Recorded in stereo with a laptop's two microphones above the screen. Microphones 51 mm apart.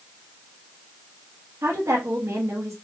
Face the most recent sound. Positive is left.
turn(degrees=-75)  # may be behind; listen again after turning